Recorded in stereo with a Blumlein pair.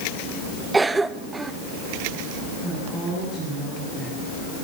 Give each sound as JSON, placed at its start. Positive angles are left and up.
{"t": 0.7, "sound": "a cough", "azimuth_deg": -10, "distance_m": 0.8}
{"t": 2.6, "sound": "a woman speaking", "azimuth_deg": -15, "distance_m": 10.0}